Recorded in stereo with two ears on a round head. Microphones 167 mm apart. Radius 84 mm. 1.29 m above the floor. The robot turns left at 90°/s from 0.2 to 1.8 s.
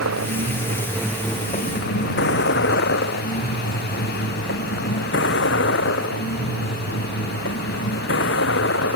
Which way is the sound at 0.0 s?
85° right.